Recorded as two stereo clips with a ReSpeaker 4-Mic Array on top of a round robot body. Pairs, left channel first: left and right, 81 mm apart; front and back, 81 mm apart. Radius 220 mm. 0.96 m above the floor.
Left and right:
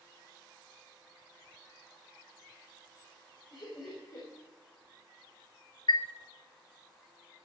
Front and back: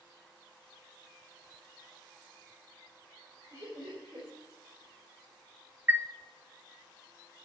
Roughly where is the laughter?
Behind left.